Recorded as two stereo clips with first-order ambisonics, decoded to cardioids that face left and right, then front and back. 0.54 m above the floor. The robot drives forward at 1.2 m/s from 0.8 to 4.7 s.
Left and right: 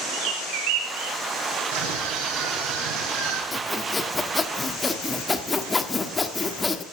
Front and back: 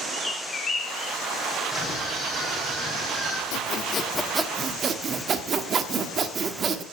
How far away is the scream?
About 6.5 m.